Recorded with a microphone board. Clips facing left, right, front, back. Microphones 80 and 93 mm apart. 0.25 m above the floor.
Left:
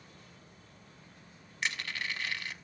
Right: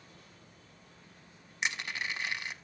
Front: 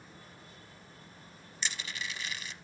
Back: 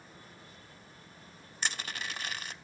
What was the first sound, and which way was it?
Crushing, 155° right.